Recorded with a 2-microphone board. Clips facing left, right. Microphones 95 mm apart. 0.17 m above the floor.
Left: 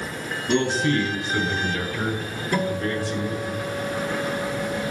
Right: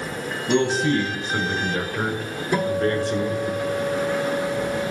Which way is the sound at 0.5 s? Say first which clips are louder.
Right 2 dB; 15° right (ahead or behind).